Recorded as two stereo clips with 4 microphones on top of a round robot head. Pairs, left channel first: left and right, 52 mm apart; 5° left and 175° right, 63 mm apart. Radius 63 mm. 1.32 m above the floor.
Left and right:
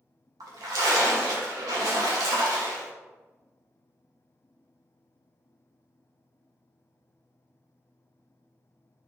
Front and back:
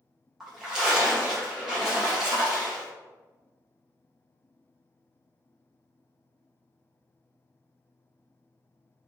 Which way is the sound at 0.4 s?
95° right.